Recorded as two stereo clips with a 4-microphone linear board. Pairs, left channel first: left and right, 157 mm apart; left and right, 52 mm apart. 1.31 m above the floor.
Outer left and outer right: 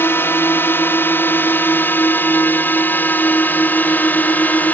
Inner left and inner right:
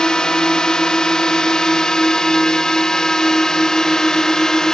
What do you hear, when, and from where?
0.0 s a drone: 15° left (ahead or behind); by 4.7 s 10° left (ahead or behind)